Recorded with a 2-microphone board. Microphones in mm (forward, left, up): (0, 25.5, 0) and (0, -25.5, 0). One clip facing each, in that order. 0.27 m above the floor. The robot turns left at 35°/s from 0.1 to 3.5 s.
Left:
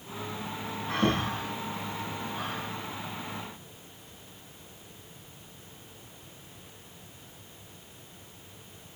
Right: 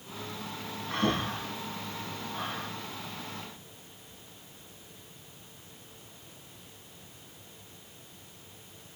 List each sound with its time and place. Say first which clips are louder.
0.9 s breathing: left 2 dB; 65° left (ahead or behind), 5.5 m; by 2.7 s 5° left (ahead or behind), 5.5 m